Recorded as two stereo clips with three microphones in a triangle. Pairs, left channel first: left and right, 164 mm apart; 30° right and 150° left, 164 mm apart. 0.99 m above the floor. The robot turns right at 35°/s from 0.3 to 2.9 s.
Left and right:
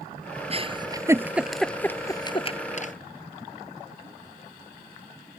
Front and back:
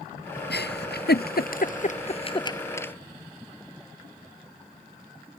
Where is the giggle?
35° right; by 2.9 s 45° left.